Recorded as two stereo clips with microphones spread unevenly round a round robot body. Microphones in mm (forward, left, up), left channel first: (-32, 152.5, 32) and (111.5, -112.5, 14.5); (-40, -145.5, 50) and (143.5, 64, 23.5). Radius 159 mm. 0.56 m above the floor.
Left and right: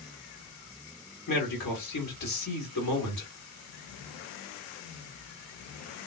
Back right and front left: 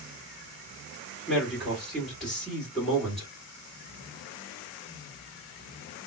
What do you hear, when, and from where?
1.3 s a man speaking: 135° left, 1.8 m